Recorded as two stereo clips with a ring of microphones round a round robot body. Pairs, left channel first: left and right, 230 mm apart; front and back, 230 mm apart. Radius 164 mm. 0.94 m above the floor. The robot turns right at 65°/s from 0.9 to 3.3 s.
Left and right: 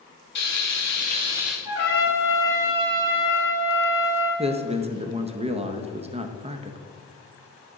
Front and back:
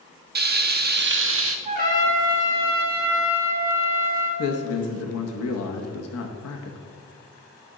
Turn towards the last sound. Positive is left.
turn(degrees=-25)